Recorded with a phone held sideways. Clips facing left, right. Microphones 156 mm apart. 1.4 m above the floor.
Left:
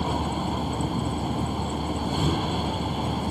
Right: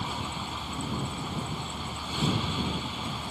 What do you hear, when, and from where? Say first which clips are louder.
0.0 s a vehicle: left 9 dB; 55° left (ahead or behind)